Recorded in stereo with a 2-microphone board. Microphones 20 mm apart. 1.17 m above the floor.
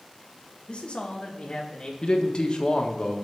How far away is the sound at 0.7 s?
About 1.5 m.